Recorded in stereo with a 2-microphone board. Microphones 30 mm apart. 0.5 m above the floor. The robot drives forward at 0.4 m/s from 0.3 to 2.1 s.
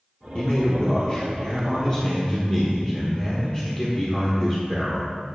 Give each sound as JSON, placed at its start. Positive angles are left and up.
{"t": 0.3, "sound": "a man speaking", "side_deg": 35, "distance_m": 0.9}